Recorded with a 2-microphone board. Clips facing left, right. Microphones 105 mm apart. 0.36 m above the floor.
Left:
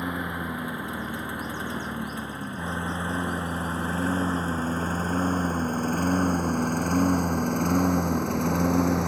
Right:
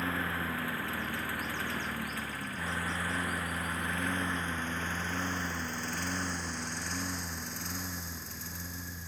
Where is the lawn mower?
15° left (ahead or behind); by 9.1 s 75° left (ahead or behind).